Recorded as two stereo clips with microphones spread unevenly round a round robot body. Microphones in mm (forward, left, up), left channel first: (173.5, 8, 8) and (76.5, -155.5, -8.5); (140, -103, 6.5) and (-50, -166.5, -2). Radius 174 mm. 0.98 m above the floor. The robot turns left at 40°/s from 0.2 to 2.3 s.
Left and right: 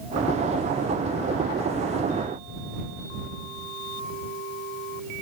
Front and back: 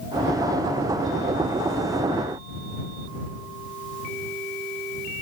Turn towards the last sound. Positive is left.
No sound to turn to.